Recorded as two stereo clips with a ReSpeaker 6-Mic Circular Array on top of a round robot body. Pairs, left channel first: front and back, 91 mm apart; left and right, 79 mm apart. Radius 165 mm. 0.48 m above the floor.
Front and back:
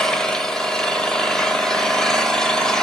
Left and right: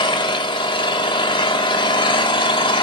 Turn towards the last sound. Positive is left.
turn(degrees=85)